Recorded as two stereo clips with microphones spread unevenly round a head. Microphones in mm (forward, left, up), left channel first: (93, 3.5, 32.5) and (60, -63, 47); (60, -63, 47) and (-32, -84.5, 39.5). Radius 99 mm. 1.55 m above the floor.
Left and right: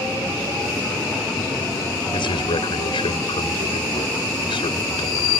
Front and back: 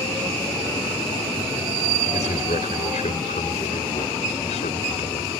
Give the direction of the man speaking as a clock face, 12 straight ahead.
10 o'clock.